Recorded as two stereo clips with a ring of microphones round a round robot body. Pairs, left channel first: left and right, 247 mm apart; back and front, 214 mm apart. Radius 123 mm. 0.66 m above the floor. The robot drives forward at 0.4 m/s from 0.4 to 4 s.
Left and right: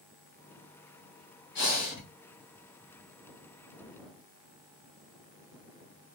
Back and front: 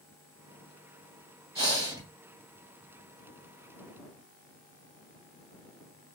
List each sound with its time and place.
1.6 s breathing: 65° left, 2 m; by 2.0 s 70° left, 2 m